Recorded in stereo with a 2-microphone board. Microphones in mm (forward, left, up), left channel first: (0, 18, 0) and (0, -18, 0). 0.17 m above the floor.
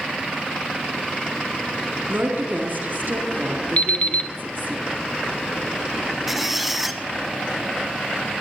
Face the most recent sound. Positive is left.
turn(degrees=-5)  # may be behind; listen again after turning